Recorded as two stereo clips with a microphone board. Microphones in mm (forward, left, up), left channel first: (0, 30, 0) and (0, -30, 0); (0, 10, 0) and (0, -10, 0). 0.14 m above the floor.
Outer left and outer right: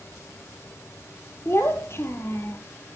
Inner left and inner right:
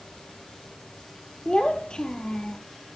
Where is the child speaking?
50° left (ahead or behind), 2 m.